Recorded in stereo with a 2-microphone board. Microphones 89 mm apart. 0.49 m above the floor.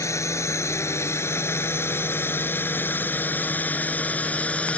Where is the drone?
35° left (ahead or behind); by 4.8 s 15° left (ahead or behind).